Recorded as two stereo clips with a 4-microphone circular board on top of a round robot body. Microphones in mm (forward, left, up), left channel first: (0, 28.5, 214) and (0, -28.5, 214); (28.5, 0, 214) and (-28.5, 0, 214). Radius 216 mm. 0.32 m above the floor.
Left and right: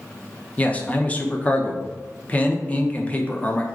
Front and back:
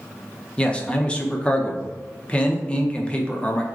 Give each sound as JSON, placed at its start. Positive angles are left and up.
{"t": 0.6, "sound": "a man speaking", "azimuth_deg": 50, "distance_m": 0.9}